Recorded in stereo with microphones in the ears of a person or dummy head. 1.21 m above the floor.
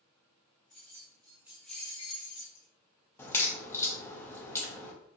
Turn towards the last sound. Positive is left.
turn(degrees=10)  # may be behind; listen again after turning